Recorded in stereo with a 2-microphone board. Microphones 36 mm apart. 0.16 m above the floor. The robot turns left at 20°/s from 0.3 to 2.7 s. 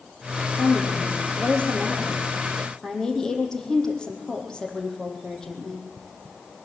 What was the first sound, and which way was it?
A woman speaking, 60° left.